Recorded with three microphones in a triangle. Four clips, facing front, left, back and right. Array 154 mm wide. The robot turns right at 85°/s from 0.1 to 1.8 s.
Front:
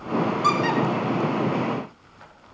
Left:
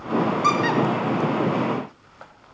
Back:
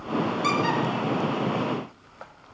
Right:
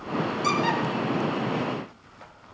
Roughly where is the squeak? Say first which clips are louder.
Left 3 dB, front 3 dB; ahead left.